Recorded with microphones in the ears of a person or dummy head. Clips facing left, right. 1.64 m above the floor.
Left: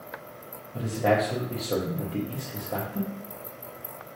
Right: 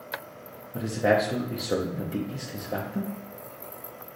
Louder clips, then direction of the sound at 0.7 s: Right 1 dB; 15° right (ahead or behind).